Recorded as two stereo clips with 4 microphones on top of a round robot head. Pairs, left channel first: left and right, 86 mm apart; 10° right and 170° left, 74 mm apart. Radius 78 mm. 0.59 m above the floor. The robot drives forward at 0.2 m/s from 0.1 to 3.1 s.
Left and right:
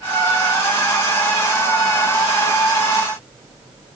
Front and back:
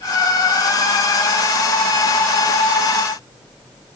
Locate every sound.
Only background noise.